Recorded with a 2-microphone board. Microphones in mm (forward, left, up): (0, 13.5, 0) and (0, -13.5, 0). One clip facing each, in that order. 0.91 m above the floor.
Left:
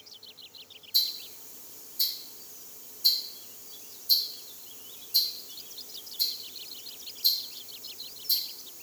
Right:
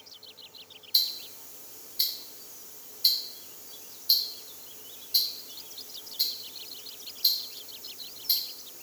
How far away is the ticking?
About 0.6 m.